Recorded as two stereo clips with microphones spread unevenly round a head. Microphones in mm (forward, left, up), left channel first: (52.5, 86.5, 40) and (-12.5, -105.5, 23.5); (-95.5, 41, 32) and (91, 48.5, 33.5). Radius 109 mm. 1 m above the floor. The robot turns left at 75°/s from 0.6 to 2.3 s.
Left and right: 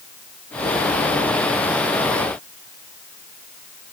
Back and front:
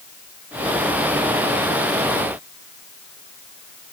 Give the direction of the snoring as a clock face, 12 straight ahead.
No snoring in this recording.